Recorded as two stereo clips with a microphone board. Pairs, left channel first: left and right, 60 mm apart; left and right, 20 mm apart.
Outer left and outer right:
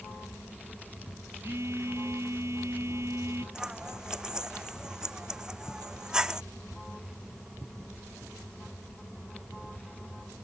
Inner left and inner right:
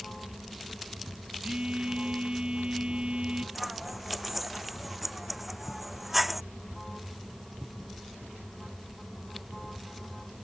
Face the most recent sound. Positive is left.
turn(degrees=-10)  # may be behind; listen again after turning